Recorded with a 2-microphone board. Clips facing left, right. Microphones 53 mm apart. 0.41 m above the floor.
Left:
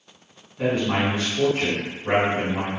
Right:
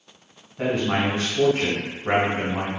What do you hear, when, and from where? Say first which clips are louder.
0.6 s a man speaking: even; 40° right (ahead or behind), 1.9 m